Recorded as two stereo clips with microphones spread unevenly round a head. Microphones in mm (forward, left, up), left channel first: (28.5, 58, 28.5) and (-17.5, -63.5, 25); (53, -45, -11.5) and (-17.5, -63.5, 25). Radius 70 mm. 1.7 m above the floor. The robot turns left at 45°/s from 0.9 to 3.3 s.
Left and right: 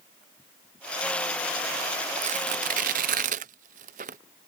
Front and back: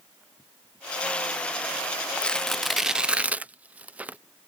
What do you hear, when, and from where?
2.2 s tearing paper: 80° right; by 4.2 s 130° right